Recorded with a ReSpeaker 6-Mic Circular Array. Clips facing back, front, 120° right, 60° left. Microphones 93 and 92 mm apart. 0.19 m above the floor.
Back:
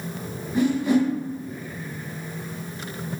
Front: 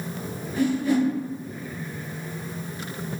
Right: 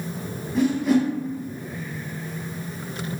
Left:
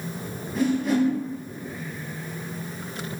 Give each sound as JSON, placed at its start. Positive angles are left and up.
{"t": 0.6, "sound": "a whoosh", "azimuth_deg": 150, "distance_m": 0.8}